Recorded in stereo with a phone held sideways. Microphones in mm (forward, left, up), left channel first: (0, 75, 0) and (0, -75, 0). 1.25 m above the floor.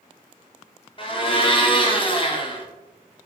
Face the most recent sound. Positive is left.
turn(degrees=35)  # may be behind; listen again after turning